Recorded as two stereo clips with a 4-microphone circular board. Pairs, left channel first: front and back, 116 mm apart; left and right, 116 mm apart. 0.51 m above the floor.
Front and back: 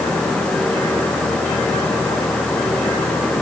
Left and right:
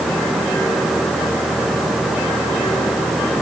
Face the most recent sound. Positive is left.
No sound to turn to.